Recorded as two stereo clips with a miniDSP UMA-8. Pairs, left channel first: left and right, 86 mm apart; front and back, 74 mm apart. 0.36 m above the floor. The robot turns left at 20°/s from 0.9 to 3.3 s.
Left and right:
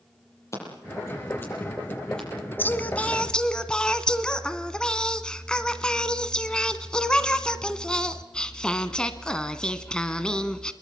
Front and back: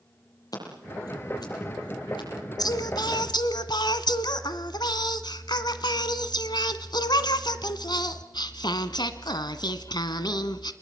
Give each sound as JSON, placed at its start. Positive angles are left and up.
{"t": 0.5, "sound": "scissors", "azimuth_deg": 35, "distance_m": 9.5}
{"t": 2.6, "sound": "singing", "azimuth_deg": 25, "distance_m": 1.4}